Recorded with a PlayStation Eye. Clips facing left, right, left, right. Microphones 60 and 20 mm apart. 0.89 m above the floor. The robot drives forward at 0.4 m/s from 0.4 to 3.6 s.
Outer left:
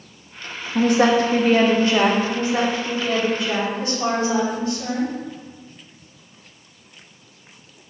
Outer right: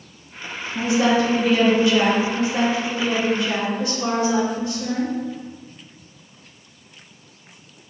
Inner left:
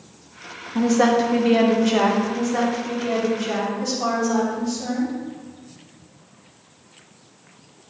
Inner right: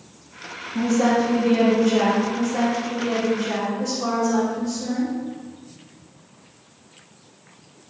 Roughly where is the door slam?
I don't hear a door slam.